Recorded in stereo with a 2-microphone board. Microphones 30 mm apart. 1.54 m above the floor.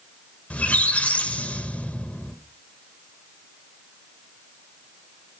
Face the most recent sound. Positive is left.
turn(degrees=60)  # may be behind; listen again after turning